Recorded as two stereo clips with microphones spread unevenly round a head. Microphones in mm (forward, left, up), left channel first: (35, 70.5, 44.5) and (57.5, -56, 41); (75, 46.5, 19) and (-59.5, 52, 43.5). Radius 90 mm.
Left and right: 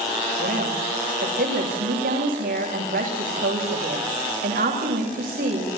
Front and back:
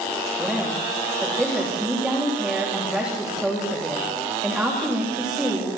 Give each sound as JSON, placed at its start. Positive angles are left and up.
{"t": 0.4, "sound": "a woman speaking", "azimuth_deg": -95, "distance_m": 8.5}